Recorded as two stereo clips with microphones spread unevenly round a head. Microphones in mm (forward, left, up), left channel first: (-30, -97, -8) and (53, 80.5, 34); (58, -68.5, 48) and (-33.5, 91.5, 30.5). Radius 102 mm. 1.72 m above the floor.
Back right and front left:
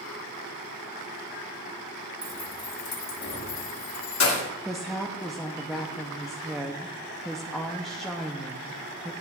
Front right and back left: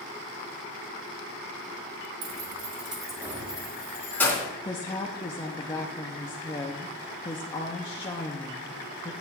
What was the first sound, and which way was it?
Keys jangling, 135° left.